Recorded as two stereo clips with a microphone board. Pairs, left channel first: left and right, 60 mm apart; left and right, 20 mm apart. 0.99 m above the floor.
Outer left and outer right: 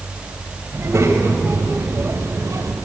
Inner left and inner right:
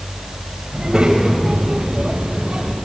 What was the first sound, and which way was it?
A child speaking, 50° right (ahead or behind).